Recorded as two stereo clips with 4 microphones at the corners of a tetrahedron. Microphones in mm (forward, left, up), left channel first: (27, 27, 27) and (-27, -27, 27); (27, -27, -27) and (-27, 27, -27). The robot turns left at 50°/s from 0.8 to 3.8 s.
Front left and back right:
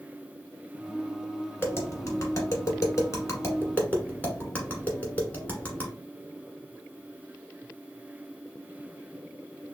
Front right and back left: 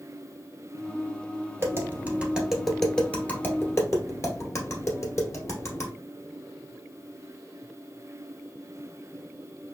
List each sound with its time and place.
1.6 s tapping: 95° left, 1.6 m; by 5.9 s 15° right, 1.6 m